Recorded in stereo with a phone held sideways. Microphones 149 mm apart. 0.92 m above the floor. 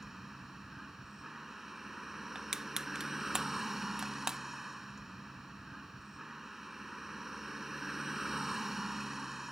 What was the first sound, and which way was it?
A vehicle, centre (ahead or behind).